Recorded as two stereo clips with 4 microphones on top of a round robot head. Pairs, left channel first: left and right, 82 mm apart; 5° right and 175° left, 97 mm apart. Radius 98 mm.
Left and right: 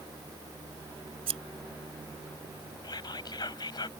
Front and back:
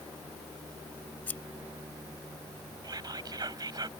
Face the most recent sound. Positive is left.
turn(degrees=125)